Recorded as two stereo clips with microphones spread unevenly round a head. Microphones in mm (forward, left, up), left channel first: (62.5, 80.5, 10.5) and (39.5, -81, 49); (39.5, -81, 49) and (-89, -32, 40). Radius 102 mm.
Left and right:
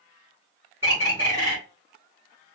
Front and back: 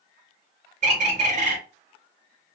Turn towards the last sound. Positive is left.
turn(degrees=-165)